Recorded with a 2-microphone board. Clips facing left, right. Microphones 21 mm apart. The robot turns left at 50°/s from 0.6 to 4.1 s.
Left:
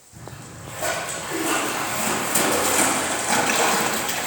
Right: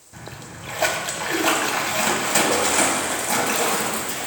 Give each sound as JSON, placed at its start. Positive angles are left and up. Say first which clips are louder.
{"t": 0.1, "sound": "a splash", "louder": "right 2 dB", "azimuth_deg": -60, "distance_m": 1.1}